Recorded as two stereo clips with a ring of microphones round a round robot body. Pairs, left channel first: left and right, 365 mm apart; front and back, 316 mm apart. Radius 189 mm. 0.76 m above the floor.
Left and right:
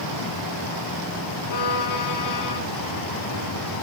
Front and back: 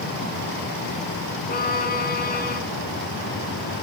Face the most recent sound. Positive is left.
turn(degrees=60)